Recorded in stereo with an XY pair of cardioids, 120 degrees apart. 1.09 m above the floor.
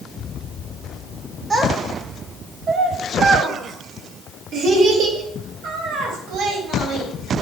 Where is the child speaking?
30° right, 1.1 m; by 7.4 s 80° right, 4 m.